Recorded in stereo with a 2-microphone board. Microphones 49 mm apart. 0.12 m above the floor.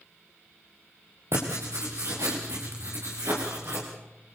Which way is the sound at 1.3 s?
65° right (ahead or behind).